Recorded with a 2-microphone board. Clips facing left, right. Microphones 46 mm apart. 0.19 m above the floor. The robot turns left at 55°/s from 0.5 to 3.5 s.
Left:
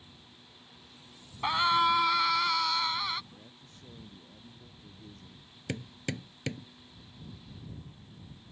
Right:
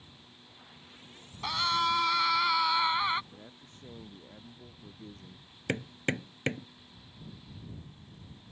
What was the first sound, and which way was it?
A scream, 45° left.